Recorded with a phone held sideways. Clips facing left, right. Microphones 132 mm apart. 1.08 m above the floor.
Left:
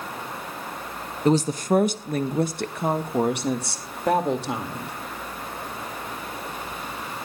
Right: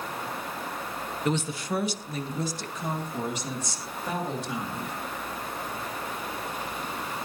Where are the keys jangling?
I don't hear keys jangling.